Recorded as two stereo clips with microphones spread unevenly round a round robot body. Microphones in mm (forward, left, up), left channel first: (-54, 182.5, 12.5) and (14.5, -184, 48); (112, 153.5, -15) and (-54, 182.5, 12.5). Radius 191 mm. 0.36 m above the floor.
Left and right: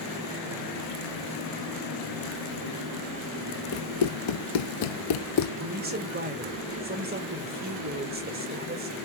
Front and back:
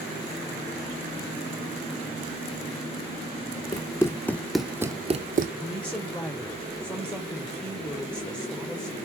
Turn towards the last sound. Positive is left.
turn(degrees=-50)